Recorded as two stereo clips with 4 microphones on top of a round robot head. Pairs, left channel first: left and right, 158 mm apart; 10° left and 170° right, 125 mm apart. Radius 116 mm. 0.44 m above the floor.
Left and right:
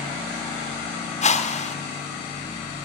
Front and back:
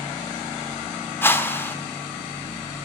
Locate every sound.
1.2 s a whoosh: 75° left, 1.5 m